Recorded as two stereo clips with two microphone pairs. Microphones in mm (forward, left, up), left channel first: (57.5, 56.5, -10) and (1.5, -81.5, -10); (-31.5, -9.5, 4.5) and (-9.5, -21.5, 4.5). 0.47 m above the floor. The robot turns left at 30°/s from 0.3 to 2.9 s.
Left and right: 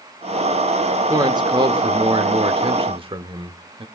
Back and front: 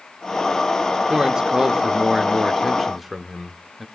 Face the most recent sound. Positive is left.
turn(degrees=-115)